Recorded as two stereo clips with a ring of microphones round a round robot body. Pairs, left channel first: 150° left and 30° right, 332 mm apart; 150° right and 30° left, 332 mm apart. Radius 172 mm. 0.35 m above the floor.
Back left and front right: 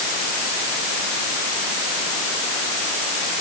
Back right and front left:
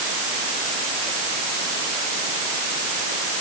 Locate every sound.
Only background noise.